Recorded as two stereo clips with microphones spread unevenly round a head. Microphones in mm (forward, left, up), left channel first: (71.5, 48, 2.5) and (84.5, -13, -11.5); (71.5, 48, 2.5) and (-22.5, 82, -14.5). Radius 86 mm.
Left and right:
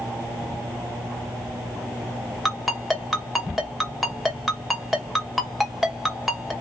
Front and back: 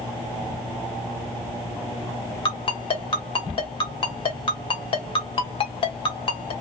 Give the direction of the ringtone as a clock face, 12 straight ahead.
12 o'clock.